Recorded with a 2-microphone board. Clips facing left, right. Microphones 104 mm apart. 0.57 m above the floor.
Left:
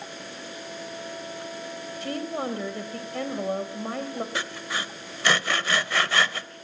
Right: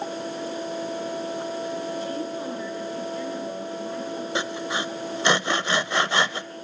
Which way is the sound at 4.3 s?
20° right (ahead or behind).